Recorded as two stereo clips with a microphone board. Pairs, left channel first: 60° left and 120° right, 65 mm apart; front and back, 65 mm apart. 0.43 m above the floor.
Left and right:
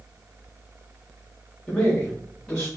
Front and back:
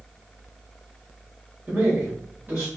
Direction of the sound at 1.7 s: 130° left.